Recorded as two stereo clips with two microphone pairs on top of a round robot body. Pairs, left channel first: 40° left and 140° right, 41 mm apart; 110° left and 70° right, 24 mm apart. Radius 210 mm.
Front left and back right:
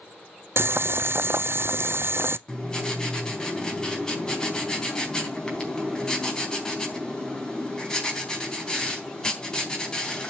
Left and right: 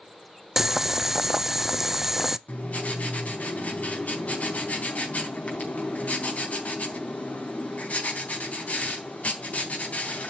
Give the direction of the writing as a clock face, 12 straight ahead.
8 o'clock.